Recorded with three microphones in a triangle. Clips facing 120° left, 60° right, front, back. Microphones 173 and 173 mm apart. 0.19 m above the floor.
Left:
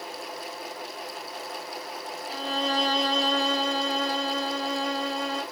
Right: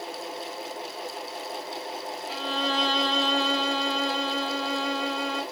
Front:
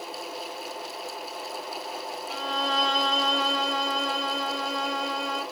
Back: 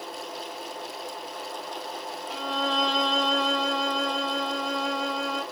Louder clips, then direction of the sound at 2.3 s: Left 1 dB, back 1 dB; 90° left.